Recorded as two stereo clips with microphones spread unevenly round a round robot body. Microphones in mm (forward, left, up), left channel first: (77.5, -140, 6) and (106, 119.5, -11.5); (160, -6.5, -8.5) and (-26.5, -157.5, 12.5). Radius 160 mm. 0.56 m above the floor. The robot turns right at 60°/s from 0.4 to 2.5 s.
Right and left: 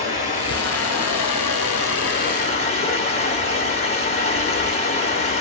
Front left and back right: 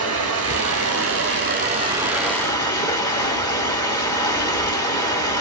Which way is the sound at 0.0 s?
155° right.